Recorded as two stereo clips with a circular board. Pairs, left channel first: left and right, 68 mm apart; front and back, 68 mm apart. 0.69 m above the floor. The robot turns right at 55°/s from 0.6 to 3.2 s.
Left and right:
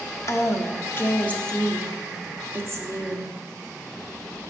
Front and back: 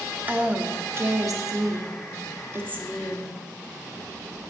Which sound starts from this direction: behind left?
A woman speaking, at 0.3 s.